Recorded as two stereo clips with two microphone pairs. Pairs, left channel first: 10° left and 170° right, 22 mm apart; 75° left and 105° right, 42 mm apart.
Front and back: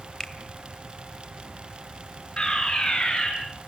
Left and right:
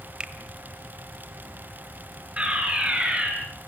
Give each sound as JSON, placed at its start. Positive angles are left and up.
{"t": 0.2, "sound": "a finger snap", "azimuth_deg": -45, "distance_m": 2.0}
{"t": 2.4, "sound": "a fire alarm", "azimuth_deg": -40, "distance_m": 9.0}